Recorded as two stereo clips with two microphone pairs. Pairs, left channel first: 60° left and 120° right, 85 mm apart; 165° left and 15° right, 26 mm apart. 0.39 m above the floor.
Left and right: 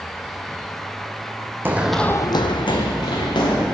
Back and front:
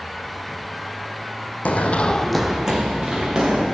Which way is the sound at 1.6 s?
175° left.